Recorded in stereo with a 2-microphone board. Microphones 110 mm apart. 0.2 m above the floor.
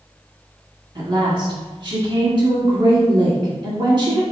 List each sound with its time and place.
0.9 s a woman speaking: 45° right (ahead or behind), 1.8 m